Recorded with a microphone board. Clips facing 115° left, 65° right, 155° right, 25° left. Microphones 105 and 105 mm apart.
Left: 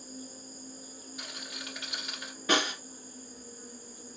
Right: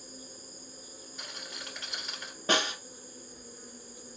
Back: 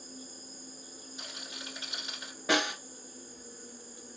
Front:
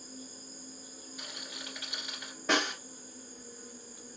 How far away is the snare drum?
About 1.4 m.